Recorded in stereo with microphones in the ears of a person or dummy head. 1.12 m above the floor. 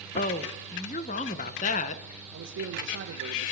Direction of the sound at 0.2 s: 40° left (ahead or behind).